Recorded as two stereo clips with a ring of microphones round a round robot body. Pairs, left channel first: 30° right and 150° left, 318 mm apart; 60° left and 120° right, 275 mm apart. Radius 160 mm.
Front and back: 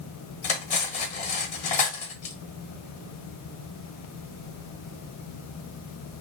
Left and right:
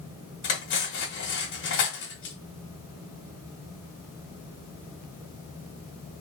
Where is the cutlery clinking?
30° left, 0.9 m.